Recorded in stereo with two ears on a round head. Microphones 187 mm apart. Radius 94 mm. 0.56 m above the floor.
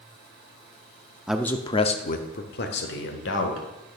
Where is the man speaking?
5° right (ahead or behind), 0.6 m; by 3.7 s 65° left (ahead or behind), 1.9 m.